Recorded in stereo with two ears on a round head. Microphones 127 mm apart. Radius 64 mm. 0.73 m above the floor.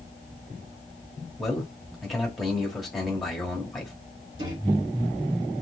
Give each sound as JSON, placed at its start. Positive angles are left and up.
{"t": 1.4, "sound": "a man speaking", "side_deg": 0, "distance_m": 1.8}
{"t": 4.4, "sound": "a microwave", "side_deg": -35, "distance_m": 3.0}